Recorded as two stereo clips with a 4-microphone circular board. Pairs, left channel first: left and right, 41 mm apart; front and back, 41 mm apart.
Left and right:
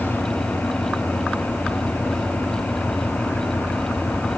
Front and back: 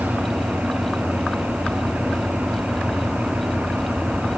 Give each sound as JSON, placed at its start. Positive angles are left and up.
{"t": 0.0, "sound": "an engine running", "azimuth_deg": 135, "distance_m": 10.0}